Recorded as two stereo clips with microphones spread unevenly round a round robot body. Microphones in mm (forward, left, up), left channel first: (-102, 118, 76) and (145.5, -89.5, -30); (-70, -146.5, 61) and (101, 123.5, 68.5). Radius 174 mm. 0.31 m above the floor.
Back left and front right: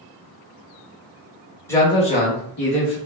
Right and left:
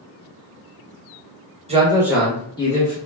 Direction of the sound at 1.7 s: 20° left.